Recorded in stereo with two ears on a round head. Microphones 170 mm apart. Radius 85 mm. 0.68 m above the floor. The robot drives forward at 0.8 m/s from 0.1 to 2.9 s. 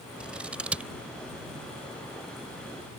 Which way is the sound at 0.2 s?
5° right (ahead or behind).